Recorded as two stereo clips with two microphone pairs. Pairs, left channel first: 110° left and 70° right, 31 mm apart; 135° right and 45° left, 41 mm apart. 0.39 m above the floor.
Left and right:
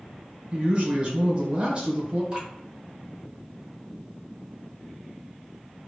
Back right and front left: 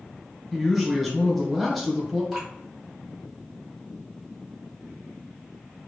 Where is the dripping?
30° right, 1.5 m.